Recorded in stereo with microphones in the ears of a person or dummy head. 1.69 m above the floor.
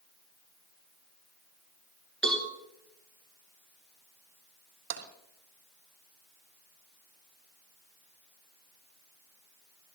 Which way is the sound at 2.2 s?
5° left (ahead or behind).